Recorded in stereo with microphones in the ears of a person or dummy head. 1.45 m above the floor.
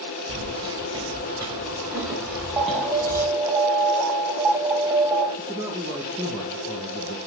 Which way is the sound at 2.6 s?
15° right (ahead or behind).